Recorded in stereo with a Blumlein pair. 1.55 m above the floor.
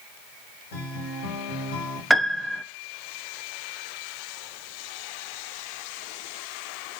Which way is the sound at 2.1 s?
Straight ahead.